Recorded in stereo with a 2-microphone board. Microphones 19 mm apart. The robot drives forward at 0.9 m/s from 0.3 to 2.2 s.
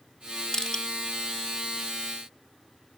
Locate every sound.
0.5 s crushing: 40° left (ahead or behind); by 0.8 s 45° left (ahead or behind)